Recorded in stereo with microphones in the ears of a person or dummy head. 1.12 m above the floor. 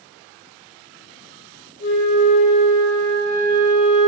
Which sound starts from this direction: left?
A flute, at 1.8 s.